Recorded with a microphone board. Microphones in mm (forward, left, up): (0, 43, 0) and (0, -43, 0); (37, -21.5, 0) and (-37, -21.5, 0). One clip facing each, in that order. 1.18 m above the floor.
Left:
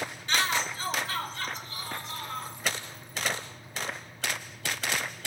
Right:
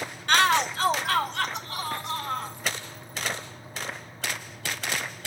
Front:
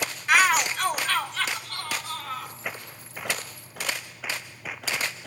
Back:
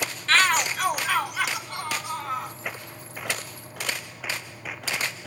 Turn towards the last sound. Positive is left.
turn(degrees=-110)